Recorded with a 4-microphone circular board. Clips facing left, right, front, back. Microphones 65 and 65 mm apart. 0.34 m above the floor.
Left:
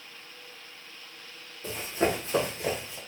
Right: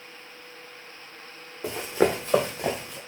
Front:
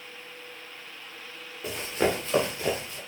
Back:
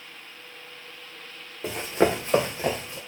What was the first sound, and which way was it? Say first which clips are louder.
Running footsteps: right 4 dB, back 4 dB; 120° right.